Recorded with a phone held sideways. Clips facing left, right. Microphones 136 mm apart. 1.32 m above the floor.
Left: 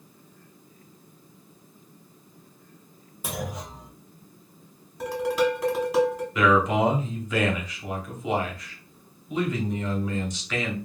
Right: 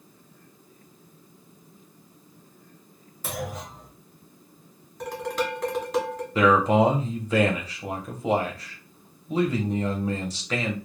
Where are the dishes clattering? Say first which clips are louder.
Left 5 dB; 5° left (ahead or behind), 0.9 m.